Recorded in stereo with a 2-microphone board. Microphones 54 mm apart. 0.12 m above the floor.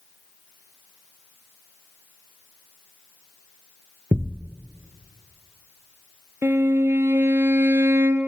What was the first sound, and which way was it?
A thud, 45° right (ahead or behind).